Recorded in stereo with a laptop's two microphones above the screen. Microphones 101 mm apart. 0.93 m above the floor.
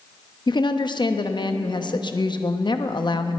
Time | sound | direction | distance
0.5 | a woman speaking | 50° left (ahead or behind) | 0.9 m